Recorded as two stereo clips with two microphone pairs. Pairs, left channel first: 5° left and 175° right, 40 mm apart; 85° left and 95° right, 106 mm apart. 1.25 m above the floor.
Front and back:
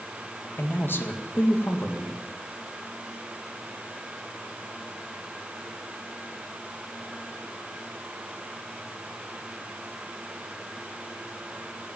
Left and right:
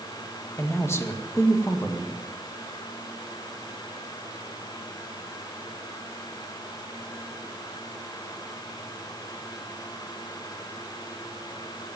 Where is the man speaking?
20° left, 1.8 m.